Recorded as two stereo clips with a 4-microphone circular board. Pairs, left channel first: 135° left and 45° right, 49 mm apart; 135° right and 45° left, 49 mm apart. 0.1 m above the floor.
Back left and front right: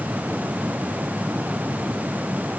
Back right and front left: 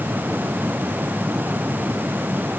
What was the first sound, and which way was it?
Only background noise.